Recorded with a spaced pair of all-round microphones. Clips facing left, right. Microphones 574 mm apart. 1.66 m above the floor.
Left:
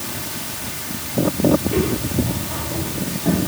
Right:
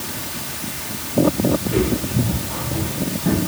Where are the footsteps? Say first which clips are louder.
Even; 35° right (ahead or behind), 7.5 m.